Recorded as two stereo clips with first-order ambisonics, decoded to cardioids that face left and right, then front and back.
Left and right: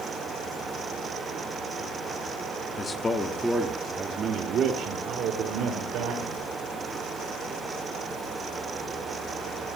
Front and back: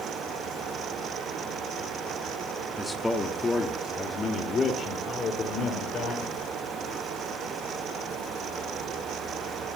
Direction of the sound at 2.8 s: 90° left.